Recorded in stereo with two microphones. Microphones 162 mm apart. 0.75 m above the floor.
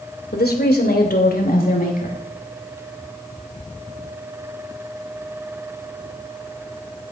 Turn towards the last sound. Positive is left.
turn(degrees=60)  # may be behind; listen again after turning